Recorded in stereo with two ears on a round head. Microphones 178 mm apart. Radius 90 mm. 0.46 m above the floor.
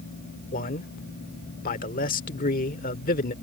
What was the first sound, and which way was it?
A man speaking, 45° left (ahead or behind).